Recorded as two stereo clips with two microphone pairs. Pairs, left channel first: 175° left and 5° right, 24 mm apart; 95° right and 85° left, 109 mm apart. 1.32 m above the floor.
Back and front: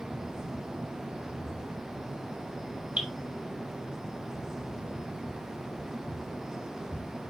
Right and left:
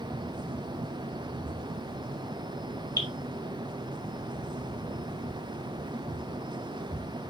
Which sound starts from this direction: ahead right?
Dripping, at 3.0 s.